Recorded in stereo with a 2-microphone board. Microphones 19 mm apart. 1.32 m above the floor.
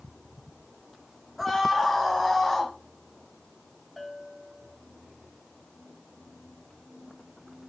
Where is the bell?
10° left (ahead or behind), 2 m.